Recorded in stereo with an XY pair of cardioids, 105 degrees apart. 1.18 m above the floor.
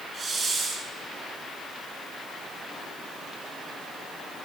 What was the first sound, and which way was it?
A hiss, 45° right.